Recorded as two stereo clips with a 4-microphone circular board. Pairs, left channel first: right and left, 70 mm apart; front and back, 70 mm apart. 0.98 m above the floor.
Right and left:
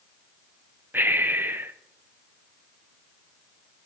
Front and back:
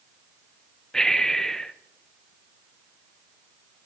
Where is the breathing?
75° left, 0.6 m.